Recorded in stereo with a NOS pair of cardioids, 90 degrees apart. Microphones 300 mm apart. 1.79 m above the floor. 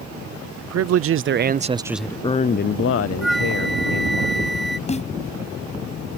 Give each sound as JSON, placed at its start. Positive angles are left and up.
{"t": 0.6, "sound": "a man speaking", "azimuth_deg": -60}
{"t": 3.2, "sound": "a flute", "azimuth_deg": 0}
{"t": 4.9, "sound": "a snare drum", "azimuth_deg": 20}